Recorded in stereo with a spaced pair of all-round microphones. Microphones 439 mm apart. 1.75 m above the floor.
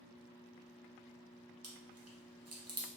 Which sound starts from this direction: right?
Chewing, at 1.6 s.